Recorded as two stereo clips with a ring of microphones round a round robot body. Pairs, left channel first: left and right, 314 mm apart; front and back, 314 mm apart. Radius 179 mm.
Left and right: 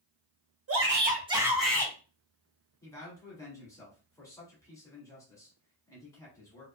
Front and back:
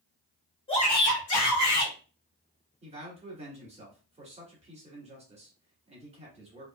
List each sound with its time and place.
0.7 s a shout: 70° right, 1.2 m; by 1.9 s 10° left, 1.6 m
2.8 s a man speaking: 155° left, 1.5 m